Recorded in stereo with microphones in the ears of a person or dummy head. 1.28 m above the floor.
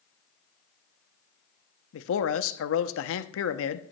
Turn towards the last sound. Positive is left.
turn(degrees=75)  # may be behind; listen again after turning